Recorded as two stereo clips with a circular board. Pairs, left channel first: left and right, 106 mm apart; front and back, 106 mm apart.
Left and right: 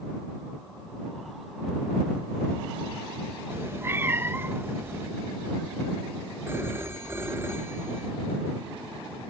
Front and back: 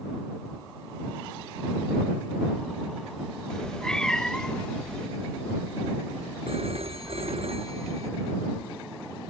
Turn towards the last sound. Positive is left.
turn(degrees=-160)